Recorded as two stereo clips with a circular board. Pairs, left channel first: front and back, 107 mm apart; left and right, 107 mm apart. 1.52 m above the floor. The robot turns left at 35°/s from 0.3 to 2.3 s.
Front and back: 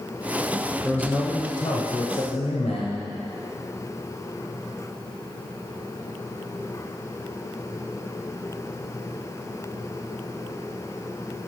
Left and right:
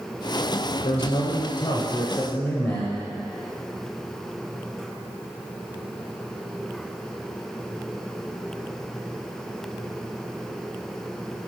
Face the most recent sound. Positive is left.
turn(degrees=25)